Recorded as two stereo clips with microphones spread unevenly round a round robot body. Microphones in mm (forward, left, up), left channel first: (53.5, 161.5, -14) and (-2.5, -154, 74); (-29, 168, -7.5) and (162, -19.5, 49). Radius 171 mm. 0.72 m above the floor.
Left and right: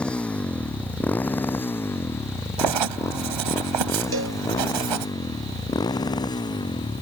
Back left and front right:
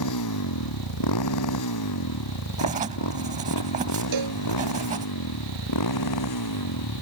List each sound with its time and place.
0.0 s a motorcycle: 165° left; by 7.0 s 160° left
2.6 s writing: 115° right
4.1 s a cowbell: 50° right